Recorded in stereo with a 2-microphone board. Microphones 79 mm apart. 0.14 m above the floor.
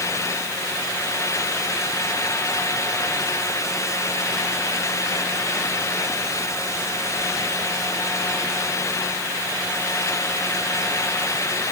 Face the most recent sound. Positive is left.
No sound to turn to.